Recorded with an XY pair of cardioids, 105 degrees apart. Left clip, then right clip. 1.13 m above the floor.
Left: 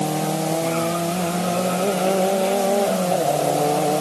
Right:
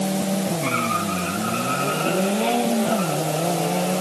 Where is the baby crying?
No baby crying in this recording.